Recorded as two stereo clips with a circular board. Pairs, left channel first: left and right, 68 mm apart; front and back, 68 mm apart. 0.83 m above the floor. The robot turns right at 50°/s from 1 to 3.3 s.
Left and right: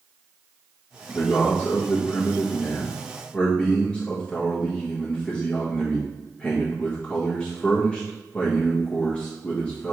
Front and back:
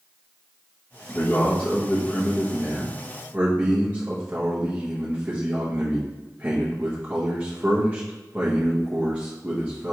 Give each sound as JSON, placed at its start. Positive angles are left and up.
{"t": 1.1, "sound": "a man speaking", "azimuth_deg": 30, "distance_m": 1.0}